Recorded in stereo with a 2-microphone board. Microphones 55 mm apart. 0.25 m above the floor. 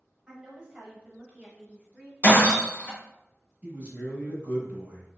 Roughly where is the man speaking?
Right.